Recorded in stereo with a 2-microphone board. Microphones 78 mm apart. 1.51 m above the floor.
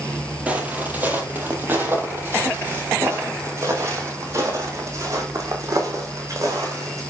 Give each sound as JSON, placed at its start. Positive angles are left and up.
{"t": 0.5, "sound": "footsteps", "side_deg": -20, "distance_m": 3.0}